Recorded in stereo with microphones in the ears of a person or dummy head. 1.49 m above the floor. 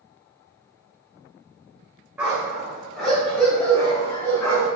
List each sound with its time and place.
2.2 s a dog barking: 10° right (ahead or behind), 2.5 m; by 4.7 s 15° left (ahead or behind), 4 m